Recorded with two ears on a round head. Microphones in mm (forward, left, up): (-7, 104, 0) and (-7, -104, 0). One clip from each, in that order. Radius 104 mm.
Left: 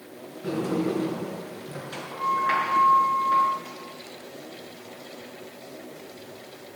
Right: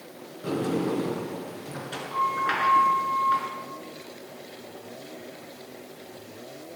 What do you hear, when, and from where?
0.4 s a sliding door: 30° right (ahead or behind), 6.5 m